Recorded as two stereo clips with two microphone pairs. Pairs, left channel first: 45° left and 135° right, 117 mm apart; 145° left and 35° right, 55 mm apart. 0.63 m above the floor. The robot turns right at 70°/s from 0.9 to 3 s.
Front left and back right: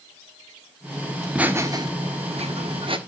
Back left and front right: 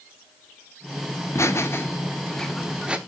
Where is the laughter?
130° left, 1.3 m; by 3.0 s 100° right, 1.3 m.